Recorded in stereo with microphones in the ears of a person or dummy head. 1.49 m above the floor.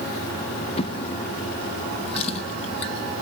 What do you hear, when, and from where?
0.8 s a drawer: 40° left (ahead or behind), 1.2 m